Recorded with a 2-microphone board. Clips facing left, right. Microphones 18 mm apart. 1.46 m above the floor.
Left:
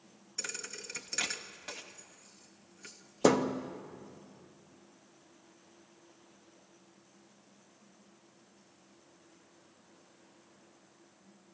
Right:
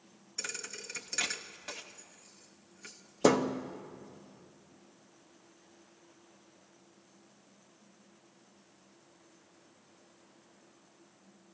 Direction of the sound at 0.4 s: Centre (ahead or behind).